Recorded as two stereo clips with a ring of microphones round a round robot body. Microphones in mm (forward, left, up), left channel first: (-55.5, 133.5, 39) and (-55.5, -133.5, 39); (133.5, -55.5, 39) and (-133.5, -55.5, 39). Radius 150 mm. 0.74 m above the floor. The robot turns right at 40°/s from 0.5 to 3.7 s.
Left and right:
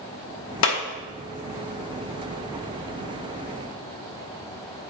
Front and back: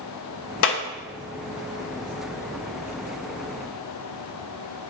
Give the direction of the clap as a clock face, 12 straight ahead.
10 o'clock.